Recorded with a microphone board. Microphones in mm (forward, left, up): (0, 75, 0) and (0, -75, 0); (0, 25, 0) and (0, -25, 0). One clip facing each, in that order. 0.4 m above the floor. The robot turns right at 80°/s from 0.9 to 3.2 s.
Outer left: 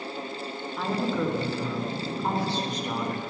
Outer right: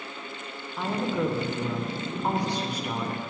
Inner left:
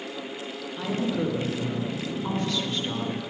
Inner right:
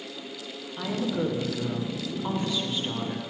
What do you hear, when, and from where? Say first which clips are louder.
0.8 s a woman speaking: even, inner left 1 dB; centre (ahead or behind), 0.7 m; by 3.2 s 5° left (ahead or behind), 0.7 m